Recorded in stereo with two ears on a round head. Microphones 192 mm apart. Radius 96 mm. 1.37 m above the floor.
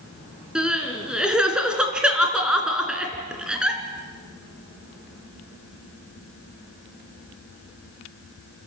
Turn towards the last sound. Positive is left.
turn(degrees=-5)  # may be behind; listen again after turning